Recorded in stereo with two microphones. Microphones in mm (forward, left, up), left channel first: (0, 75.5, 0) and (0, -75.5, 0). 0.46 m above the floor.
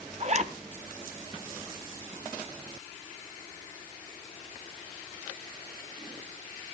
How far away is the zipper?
About 0.8 m.